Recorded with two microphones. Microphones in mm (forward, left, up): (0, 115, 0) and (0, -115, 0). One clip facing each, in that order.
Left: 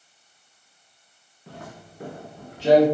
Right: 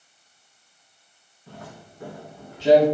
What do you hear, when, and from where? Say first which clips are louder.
1.5 s footsteps: left 1 dB; 75° left (ahead or behind), 1.0 m; by 2.9 s 55° left (ahead or behind), 1.4 m